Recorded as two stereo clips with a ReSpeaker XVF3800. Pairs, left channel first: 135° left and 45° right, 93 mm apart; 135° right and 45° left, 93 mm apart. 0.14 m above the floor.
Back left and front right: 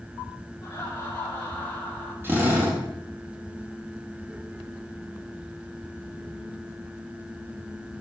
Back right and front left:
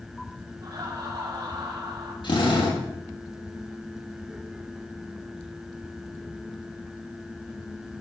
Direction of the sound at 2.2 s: 110° right.